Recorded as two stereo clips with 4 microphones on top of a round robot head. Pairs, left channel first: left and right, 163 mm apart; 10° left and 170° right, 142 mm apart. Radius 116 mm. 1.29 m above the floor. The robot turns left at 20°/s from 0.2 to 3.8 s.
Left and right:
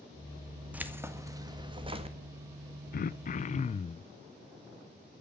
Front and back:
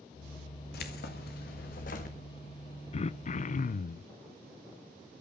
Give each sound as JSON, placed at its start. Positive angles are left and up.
{"t": 0.7, "sound": "keys jangling", "azimuth_deg": -10, "distance_m": 1.5}
{"t": 2.9, "sound": "throat clearing", "azimuth_deg": 55, "distance_m": 0.6}